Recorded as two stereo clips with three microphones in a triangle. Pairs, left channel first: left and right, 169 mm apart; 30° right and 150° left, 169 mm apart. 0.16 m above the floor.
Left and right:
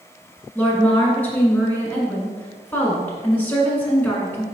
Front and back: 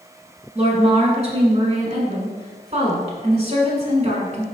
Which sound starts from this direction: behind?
A woman speaking, at 0.6 s.